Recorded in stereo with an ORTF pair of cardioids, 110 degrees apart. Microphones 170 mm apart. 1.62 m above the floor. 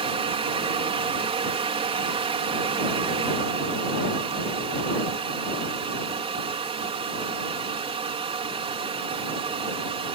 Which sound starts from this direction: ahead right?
A fan, at 0.0 s.